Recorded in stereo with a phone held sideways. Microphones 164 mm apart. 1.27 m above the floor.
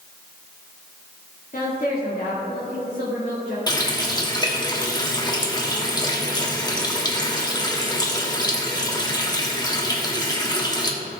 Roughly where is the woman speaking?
Left.